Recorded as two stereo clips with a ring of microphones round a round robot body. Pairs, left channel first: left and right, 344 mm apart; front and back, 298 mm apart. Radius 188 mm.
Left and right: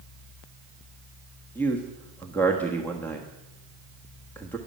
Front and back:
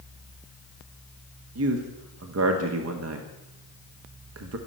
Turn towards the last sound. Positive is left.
turn(degrees=175)